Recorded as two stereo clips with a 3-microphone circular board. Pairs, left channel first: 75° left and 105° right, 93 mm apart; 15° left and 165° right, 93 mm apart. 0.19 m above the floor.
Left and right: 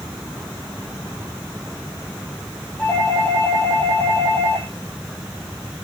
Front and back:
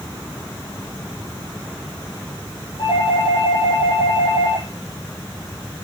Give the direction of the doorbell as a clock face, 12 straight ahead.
12 o'clock.